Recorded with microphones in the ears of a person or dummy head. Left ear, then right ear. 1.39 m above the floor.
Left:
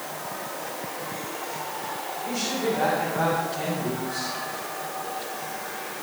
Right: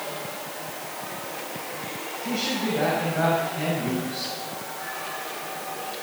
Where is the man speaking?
10° right (ahead or behind), 7 m.